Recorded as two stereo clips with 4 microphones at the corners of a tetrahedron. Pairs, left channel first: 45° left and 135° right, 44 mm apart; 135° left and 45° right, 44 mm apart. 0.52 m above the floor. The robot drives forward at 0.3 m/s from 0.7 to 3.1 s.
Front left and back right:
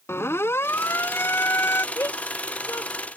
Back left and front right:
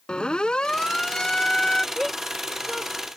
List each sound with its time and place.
0.1 s a siren: 65° left; by 1.9 s 60° left
1.9 s a shout: 45° left